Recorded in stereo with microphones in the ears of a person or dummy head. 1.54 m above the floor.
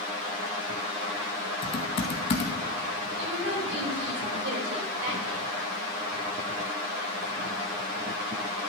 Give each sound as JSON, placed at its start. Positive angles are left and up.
{"t": 1.6, "sound": "typing on a keyboard", "side_deg": 30, "distance_m": 1.0}
{"t": 3.2, "sound": "a woman speaking", "side_deg": -80, "distance_m": 5.5}